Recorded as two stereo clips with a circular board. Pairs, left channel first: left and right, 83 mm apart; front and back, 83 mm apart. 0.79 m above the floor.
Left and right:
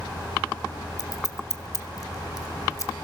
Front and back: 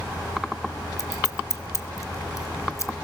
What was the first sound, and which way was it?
Scissors, 45° left.